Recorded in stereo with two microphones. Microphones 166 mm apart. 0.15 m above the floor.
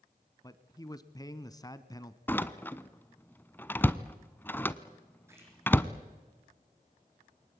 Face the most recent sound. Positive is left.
turn(degrees=-15)  # may be behind; listen again after turning